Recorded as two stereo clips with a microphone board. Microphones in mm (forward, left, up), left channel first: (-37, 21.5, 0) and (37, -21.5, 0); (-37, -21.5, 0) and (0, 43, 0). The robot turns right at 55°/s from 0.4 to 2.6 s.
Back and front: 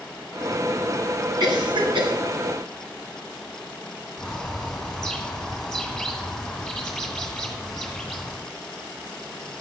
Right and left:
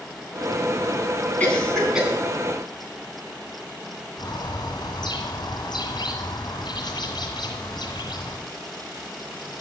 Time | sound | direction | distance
1.4 | a cough | 55° right | 3.5 m
4.2 | a bird | 125° right | 1.9 m